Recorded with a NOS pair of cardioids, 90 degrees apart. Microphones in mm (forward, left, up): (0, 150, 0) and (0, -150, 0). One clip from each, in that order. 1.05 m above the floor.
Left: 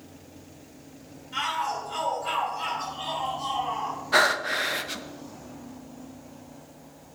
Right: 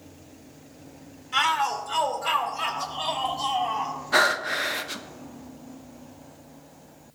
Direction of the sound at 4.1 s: Straight ahead.